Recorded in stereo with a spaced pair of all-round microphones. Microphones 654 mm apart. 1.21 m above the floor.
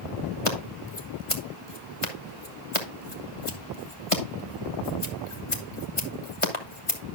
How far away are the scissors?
About 1.5 m.